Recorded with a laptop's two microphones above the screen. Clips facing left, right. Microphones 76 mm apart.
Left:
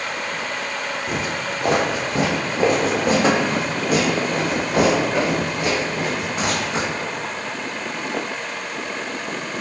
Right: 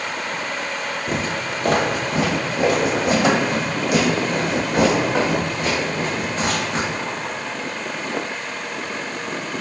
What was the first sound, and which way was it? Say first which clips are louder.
Footsteps: right 2 dB; 5° left (ahead or behind).